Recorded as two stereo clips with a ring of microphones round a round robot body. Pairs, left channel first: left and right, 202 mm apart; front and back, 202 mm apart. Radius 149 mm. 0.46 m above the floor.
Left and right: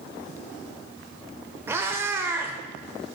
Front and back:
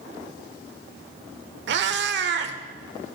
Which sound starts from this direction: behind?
A cat meowing, at 1.7 s.